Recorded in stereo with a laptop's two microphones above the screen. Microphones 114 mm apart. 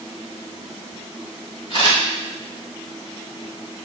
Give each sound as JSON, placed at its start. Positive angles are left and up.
{"t": 1.7, "sound": "a camera shutter", "side_deg": 50, "distance_m": 2.5}